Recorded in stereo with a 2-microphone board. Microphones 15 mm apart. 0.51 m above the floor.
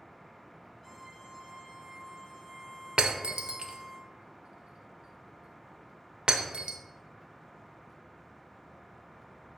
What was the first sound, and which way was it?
A violin, 5° left (ahead or behind).